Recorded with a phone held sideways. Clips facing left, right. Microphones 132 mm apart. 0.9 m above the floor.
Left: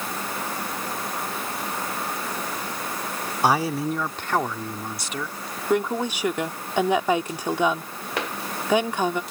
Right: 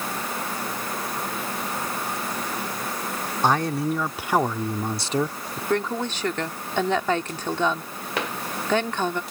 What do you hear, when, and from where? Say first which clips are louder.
3.4 s a man speaking: even; 10° left (ahead or behind); by 5.6 s 45° right (ahead or behind)
5.7 s a woman speaking: left 2 dB; 10° left (ahead or behind)